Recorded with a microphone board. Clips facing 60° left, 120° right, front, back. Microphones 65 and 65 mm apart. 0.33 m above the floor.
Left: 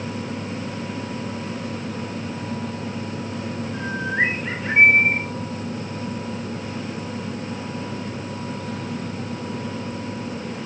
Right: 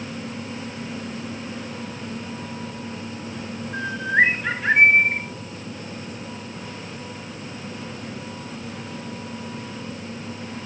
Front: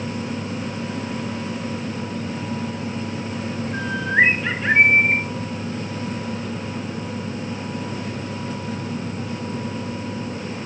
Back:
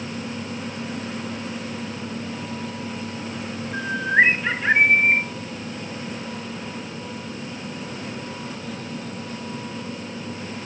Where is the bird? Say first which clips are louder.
Right 5 dB, back 1 dB; 95° right, 3.5 m.